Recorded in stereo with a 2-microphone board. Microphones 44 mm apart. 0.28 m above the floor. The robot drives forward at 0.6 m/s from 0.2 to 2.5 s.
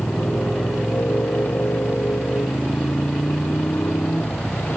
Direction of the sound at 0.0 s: 50° left (ahead or behind).